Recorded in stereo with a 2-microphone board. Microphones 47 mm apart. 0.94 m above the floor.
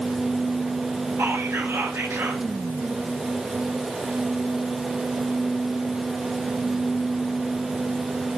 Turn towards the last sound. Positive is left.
turn(degrees=-85)